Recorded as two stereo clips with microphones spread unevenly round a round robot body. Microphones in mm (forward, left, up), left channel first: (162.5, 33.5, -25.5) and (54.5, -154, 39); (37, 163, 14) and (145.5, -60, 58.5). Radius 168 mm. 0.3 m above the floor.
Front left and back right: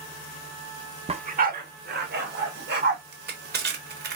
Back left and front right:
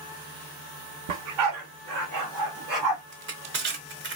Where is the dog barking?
50° right, 0.7 m; by 3.0 s 80° right, 3 m.